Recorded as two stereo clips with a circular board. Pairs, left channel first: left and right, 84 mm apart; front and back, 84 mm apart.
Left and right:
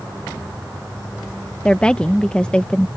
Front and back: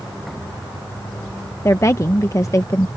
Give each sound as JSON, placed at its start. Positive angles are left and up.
{"t": 1.6, "sound": "a woman speaking", "azimuth_deg": 20}